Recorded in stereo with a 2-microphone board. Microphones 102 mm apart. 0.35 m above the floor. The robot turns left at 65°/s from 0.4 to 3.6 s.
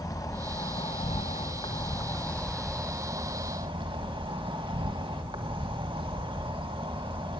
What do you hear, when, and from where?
0.0 s an insect: 140° left, 1.6 m; by 7.4 s 65° right, 1.6 m